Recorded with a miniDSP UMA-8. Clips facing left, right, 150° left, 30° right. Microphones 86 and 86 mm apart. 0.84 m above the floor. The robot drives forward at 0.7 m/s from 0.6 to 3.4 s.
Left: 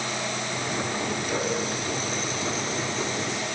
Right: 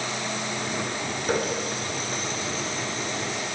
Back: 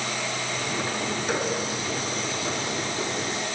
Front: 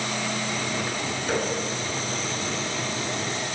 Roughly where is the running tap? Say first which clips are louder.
Right 4 dB, front 2 dB; behind right.